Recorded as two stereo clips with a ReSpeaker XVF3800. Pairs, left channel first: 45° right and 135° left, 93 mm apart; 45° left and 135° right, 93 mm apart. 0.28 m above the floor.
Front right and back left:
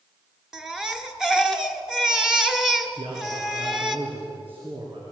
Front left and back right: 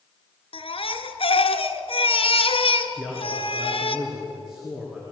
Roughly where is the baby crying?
Ahead left.